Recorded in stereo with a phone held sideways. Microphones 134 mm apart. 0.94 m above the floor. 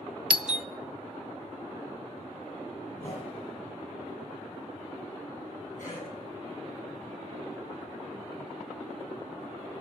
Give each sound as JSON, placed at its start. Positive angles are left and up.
{"t": 0.3, "sound": "a doorbell", "side_deg": -5, "distance_m": 0.6}
{"t": 2.9, "sound": "a whoosh", "side_deg": 75, "distance_m": 8.5}
{"t": 5.8, "sound": "a cough", "side_deg": 70, "distance_m": 9.5}